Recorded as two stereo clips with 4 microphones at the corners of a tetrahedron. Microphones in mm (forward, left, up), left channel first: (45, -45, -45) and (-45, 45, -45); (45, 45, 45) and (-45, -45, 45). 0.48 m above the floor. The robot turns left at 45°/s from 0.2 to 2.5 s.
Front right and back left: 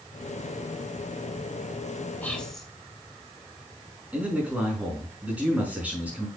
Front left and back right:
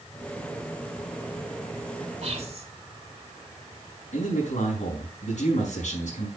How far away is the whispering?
About 2.5 m.